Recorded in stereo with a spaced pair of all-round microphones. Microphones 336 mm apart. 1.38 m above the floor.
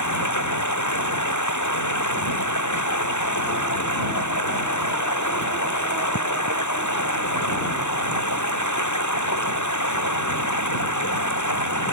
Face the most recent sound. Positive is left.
turn(degrees=60)  # may be behind; listen again after turning